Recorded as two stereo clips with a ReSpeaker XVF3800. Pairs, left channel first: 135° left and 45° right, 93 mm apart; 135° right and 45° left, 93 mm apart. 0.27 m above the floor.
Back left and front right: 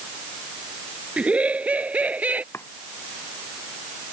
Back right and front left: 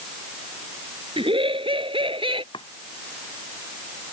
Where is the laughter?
30° left.